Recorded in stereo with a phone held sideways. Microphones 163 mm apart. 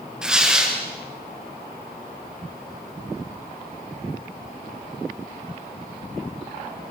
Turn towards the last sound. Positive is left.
turn(degrees=-5)  # may be behind; listen again after turning